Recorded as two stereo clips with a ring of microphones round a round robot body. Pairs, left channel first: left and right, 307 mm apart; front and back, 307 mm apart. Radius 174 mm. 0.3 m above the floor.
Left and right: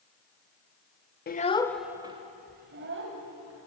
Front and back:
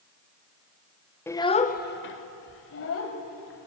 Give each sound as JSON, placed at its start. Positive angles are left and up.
{"t": 1.3, "sound": "a child speaking", "azimuth_deg": 75, "distance_m": 0.8}